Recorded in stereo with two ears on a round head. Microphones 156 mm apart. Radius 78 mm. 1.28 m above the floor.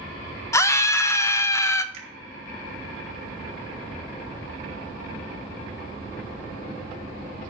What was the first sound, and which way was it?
A scream, 15° left (ahead or behind).